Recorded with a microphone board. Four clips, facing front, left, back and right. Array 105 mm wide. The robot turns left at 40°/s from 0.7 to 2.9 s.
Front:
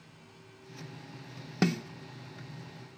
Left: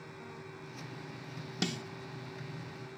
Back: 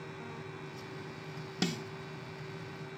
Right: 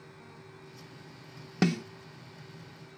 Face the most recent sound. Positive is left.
turn(degrees=-100)